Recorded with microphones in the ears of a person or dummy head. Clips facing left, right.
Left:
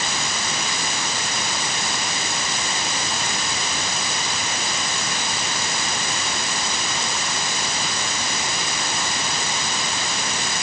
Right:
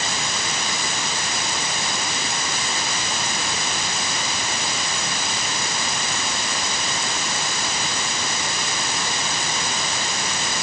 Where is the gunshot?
No gunshot in this recording.